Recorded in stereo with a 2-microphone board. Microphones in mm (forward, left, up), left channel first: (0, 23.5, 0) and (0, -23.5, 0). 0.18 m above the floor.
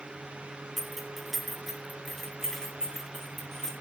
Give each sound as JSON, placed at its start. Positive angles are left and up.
{"t": 0.8, "sound": "keys jangling", "side_deg": 0, "distance_m": 1.2}